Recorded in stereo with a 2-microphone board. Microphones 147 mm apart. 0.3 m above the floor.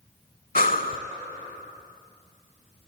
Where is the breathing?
70° left (ahead or behind), 0.6 m.